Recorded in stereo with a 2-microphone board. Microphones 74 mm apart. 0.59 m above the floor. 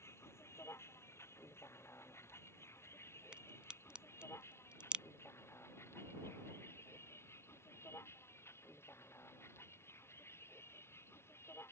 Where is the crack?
15° right (ahead or behind).